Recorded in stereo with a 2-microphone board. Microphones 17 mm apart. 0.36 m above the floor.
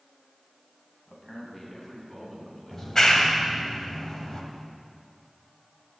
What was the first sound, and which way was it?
A man speaking, 25° left (ahead or behind).